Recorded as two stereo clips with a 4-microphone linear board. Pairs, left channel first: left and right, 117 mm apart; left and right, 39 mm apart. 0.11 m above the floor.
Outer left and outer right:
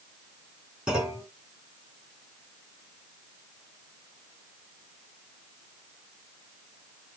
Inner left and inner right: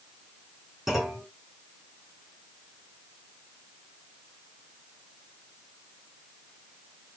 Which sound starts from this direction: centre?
A clunk, at 0.9 s.